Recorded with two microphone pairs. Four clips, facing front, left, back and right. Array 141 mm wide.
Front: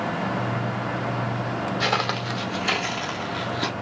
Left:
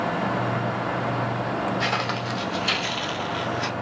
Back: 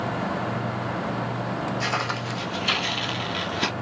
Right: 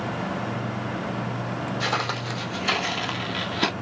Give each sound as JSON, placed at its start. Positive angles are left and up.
{"t": 1.8, "sound": "footsteps", "azimuth_deg": -5, "distance_m": 0.9}